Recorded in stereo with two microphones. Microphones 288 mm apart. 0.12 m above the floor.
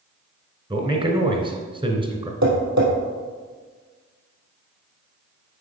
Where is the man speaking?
15° right (ahead or behind), 1.2 m.